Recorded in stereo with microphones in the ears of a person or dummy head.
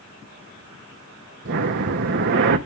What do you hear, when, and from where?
1.4 s breathing: 50° right (ahead or behind), 0.8 m